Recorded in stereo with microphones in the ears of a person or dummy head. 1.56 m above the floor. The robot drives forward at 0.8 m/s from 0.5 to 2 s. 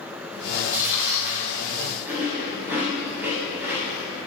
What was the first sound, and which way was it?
Chewing, 5° right (ahead or behind).